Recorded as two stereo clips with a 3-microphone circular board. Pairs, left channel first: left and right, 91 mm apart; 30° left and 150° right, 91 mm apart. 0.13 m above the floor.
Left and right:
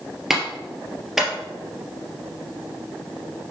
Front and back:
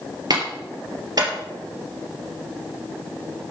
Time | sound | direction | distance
0.3 | a clap | 175° right | 3 m